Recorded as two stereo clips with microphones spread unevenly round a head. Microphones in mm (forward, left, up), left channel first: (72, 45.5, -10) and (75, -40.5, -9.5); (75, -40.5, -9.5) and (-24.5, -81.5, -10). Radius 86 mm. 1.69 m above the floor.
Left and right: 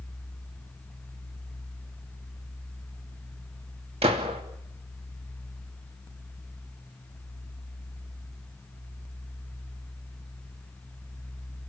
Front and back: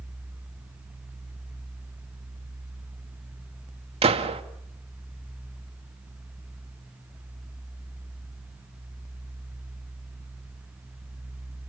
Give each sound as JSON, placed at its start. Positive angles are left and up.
{"t": 4.0, "sound": "a gunshot", "azimuth_deg": -130, "distance_m": 2.5}